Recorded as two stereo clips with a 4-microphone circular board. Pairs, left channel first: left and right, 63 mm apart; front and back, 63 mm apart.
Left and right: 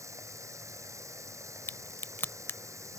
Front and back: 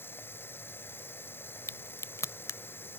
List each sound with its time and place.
0.0 s running water: 55° right
1.7 s a crack: 35° left